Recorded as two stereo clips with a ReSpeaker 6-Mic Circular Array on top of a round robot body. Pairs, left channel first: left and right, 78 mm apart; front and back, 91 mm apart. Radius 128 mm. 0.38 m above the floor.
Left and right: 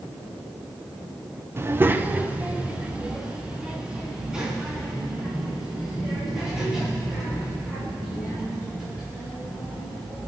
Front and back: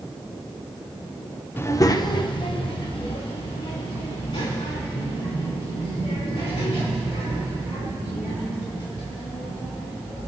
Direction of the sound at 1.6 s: 50° right.